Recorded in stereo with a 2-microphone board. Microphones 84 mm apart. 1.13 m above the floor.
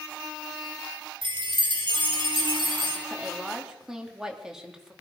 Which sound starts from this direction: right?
A chime, at 1.2 s.